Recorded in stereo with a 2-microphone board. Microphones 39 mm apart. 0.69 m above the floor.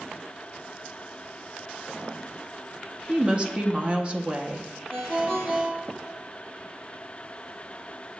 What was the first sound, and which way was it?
A woman speaking, 30° right (ahead or behind).